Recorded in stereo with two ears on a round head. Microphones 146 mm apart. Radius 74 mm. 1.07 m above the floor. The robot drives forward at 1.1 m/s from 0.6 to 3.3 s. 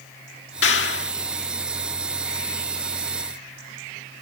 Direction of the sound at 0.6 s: 80° left.